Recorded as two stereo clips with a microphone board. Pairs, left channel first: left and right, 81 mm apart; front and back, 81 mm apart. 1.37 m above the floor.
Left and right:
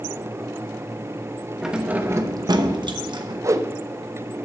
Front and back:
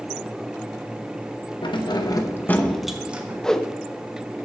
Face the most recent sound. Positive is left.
turn(degrees=-80)